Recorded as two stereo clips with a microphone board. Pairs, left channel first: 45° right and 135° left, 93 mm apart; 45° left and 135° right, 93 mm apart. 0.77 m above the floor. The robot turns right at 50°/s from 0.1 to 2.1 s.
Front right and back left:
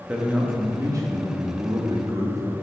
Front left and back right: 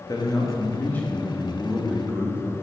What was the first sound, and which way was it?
A man speaking, 60° left.